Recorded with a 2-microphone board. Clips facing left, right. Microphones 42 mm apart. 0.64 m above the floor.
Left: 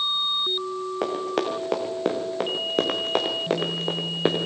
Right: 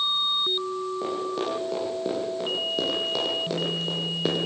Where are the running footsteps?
75° left (ahead or behind), 4.5 m; by 4.4 s 35° left (ahead or behind), 3.5 m.